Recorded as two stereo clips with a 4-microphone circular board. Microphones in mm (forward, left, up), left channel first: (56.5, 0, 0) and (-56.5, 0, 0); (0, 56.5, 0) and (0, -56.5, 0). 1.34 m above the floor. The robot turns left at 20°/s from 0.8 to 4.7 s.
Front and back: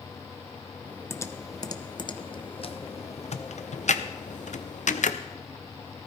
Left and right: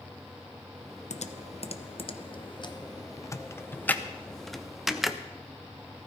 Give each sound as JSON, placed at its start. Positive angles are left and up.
{"t": 1.1, "sound": "typing on a keyboard", "azimuth_deg": 70, "distance_m": 0.7}